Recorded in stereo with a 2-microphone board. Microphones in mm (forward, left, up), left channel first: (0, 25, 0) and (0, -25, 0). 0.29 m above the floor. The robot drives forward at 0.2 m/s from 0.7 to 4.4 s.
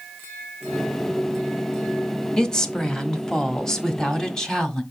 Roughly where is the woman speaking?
Centre.